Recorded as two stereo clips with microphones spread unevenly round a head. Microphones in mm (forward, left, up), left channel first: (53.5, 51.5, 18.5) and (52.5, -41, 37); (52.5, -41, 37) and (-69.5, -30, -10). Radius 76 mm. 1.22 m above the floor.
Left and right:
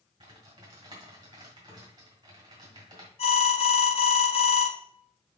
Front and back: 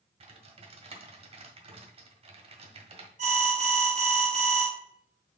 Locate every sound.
0.2 s typing on a keyboard: 135° right, 1.5 m
3.2 s an alarm: 130° left, 1.6 m